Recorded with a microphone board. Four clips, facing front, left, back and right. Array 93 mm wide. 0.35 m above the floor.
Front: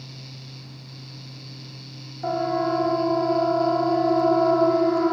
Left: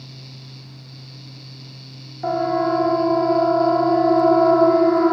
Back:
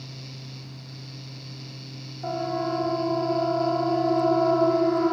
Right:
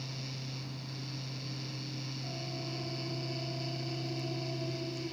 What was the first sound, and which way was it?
A siren, 75° left.